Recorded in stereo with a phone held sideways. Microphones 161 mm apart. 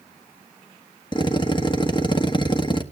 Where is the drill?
30° left (ahead or behind), 1.3 m.